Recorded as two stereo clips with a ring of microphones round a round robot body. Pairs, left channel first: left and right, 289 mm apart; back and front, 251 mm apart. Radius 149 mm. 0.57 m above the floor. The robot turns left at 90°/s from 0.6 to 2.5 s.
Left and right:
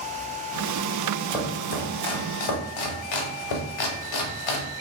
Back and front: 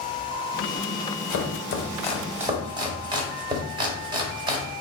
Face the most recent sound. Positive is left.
turn(degrees=75)